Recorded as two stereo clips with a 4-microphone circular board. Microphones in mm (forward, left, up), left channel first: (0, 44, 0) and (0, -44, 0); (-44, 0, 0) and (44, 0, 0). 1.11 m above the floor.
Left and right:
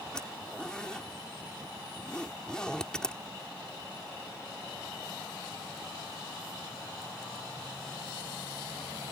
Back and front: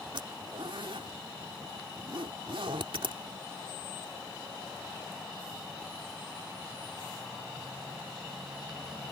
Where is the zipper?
10° left.